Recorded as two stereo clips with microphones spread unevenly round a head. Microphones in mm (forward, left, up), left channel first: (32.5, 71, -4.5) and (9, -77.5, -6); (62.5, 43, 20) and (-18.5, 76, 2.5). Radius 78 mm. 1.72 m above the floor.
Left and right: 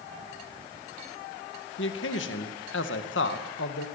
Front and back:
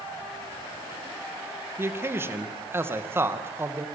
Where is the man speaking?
95° left, 2 m.